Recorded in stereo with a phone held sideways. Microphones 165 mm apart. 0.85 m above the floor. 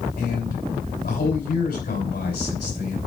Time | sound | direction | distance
0.2 | a man speaking | 80° left | 5 m